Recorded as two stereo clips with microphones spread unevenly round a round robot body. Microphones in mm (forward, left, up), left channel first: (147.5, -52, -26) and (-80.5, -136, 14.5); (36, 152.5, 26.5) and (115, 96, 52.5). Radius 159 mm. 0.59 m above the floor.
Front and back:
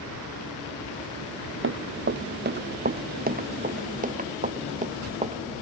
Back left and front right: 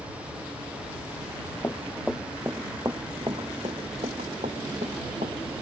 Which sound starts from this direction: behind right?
Running footsteps, at 1.6 s.